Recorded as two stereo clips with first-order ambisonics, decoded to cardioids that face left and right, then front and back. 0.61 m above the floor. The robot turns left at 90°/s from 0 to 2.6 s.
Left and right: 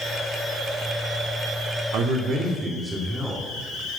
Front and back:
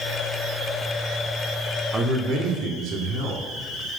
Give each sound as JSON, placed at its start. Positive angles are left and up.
{"t": 1.9, "sound": "a man speaking", "azimuth_deg": -110, "distance_m": 1.6}